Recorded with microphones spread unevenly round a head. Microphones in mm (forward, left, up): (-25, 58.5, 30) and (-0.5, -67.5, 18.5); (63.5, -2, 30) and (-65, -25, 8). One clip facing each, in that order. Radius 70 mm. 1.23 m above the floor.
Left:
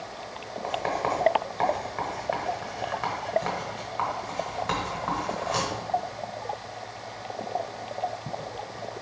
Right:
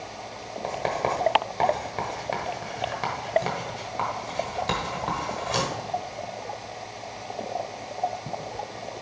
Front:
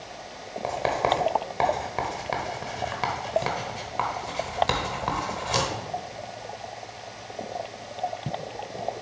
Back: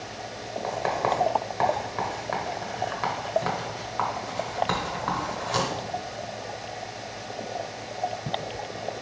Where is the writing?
25° right, 1.1 m.